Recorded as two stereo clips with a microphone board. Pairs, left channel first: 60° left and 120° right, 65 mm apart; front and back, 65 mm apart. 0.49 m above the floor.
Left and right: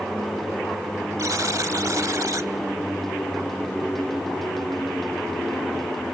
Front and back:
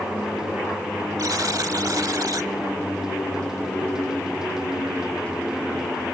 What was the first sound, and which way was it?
A buzzer, 155° right.